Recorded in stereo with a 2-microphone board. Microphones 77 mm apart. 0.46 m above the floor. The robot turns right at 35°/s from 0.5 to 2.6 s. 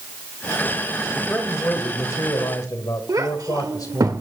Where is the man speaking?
20° left, 2.0 m; by 4.1 s 70° left, 2.0 m.